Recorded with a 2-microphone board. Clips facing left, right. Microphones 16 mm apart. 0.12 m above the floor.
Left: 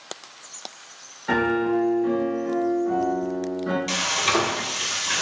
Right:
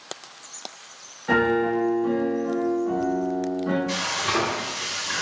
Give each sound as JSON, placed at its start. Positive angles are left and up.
{"t": 1.3, "sound": "a piano", "side_deg": 20, "distance_m": 0.8}
{"t": 3.9, "sound": "frying", "side_deg": 75, "distance_m": 0.5}